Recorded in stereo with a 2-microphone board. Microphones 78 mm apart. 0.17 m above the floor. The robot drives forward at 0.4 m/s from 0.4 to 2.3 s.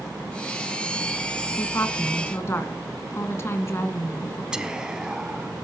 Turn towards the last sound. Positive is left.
turn(degrees=-10)  # may be behind; listen again after turning